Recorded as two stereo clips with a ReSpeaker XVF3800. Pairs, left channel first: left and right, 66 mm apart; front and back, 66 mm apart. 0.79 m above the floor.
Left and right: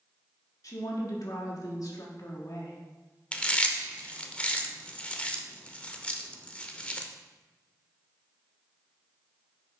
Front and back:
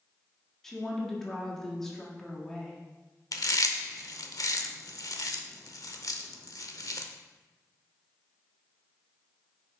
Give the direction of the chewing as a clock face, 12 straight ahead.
11 o'clock.